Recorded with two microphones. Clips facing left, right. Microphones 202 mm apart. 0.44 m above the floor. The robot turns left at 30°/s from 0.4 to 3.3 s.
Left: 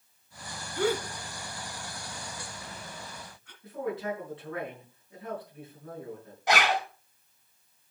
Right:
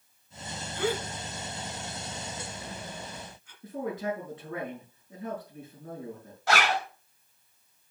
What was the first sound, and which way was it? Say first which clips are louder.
A gasp: left 2 dB; 40° left (ahead or behind).